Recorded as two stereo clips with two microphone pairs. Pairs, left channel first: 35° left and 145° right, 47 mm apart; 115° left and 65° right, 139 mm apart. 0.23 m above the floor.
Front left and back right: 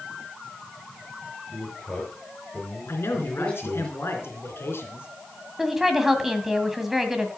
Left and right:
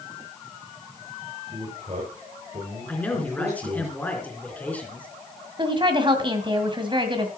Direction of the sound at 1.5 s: 30° right.